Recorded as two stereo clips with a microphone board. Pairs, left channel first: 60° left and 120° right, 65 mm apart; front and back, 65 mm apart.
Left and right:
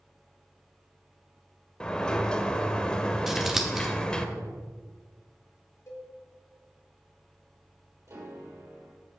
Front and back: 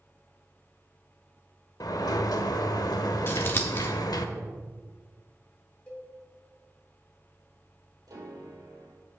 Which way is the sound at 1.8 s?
15° right.